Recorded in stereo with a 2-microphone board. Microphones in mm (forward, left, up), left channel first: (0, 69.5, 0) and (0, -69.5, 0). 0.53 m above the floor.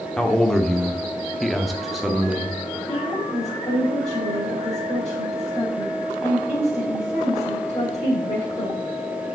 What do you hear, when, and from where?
0.2 s a man speaking: 5° left (ahead or behind), 1.1 m; by 2.6 s 5° right (ahead or behind), 1.0 m
2.9 s a woman speaking: 35° left (ahead or behind), 2.5 m